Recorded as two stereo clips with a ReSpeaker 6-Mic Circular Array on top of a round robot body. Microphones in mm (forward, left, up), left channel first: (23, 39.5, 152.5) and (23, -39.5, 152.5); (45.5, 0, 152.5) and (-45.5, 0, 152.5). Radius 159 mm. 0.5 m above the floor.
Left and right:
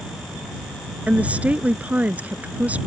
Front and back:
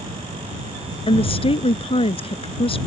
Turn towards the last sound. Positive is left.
turn(degrees=-15)